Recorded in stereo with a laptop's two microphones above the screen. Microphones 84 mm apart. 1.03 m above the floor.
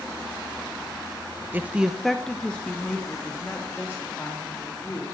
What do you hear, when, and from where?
1.5 s a woman speaking: 20° right (ahead or behind), 0.6 m; by 5.0 s 20° left (ahead or behind), 3.5 m